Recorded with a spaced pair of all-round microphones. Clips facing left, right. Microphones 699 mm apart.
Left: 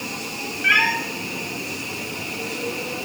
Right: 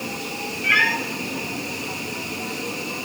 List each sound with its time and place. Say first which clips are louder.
0.6 s a cat meowing: right 1 dB; 25° left (ahead or behind), 1.3 m